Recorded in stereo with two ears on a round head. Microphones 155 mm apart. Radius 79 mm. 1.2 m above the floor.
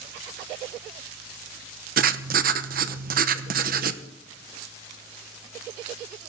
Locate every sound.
2.0 s writing: 50° right (ahead or behind), 0.9 m